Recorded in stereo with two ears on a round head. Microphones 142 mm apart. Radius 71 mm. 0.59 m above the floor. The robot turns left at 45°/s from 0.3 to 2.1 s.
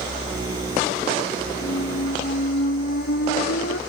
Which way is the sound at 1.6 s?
50° left (ahead or behind).